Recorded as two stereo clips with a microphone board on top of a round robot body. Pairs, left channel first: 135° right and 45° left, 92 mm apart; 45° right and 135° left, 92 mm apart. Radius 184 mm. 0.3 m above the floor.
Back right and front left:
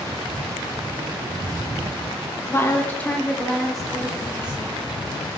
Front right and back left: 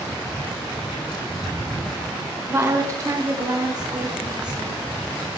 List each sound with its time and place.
2.5 s a woman speaking: 175° right, 1.4 m; by 4.9 s 110° left, 1.9 m